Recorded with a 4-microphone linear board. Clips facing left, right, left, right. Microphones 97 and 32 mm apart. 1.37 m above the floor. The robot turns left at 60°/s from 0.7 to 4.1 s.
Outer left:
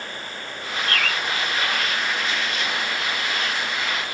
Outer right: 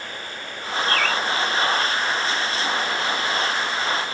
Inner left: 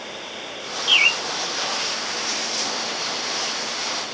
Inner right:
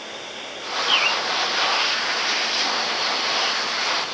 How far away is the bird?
About 1.8 m.